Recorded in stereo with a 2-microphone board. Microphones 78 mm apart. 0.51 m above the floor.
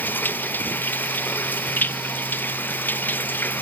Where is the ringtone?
No ringtone in this recording.